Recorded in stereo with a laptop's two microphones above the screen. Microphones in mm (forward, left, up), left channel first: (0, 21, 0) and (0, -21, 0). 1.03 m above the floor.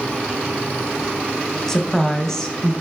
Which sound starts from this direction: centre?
A woman speaking, at 1.7 s.